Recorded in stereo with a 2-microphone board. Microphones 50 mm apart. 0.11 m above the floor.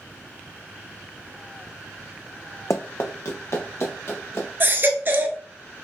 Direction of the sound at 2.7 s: 70° left (ahead or behind).